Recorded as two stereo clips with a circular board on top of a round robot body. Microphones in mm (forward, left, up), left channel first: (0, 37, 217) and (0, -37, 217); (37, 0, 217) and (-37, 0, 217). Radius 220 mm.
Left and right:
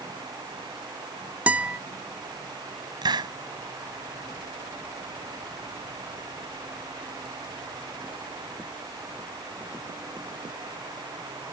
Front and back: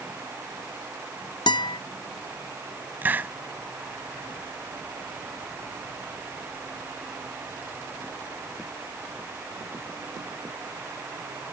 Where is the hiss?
115° right.